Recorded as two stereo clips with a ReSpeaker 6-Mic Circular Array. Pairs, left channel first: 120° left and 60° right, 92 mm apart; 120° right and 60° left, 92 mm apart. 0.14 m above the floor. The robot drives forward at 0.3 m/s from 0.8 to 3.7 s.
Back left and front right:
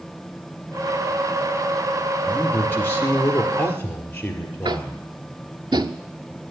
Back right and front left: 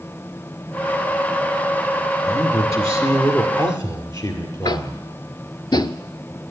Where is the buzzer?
No buzzer in this recording.